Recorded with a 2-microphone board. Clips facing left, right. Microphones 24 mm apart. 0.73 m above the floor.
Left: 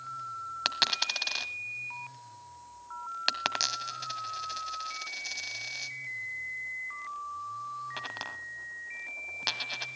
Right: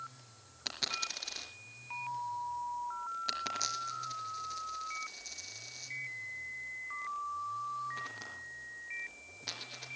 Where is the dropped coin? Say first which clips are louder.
Left 8 dB; 80° left, 1.7 m.